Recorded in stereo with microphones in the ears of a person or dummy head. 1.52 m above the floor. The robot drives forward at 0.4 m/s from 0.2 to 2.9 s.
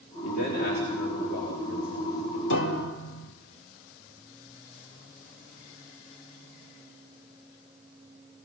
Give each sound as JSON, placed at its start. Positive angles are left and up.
{"t": 0.2, "sound": "a man speaking", "side_deg": 60, "distance_m": 3.0}
{"t": 2.5, "sound": "a piano", "side_deg": 75, "distance_m": 1.3}